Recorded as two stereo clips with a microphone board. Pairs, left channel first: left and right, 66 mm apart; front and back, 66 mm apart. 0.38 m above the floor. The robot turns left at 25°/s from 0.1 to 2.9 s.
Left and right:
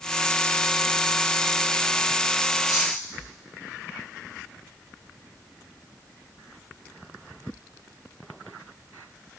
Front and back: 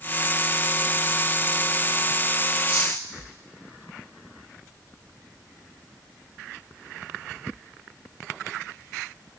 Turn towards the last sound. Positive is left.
turn(degrees=110)